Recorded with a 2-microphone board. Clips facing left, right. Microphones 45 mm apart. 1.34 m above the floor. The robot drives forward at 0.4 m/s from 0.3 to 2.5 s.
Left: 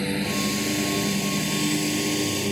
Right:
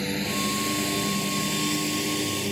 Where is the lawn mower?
5° left (ahead or behind); by 2.5 s 10° left (ahead or behind).